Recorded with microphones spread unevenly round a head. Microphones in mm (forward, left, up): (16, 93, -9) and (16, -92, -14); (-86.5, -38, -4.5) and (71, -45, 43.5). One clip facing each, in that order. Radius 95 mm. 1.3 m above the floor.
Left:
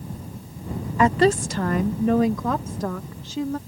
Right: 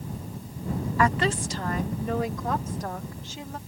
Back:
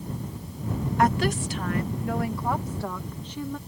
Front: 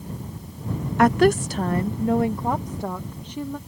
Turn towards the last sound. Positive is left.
turn(degrees=80)